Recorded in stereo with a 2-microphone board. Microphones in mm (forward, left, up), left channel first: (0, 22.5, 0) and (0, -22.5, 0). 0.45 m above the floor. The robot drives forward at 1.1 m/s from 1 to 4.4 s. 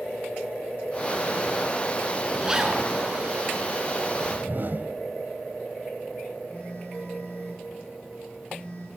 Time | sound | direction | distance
2.4 | a zipper | 20° right (ahead or behind) | 4 m
4.1 | a whoosh | 65° right (ahead or behind) | 1.0 m
6.5 | a phone buzzing | 40° left (ahead or behind) | 7 m